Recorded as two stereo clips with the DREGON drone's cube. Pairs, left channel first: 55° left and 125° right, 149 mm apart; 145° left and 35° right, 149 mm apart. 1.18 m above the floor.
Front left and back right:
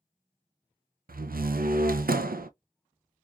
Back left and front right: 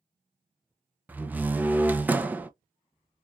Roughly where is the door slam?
Behind right.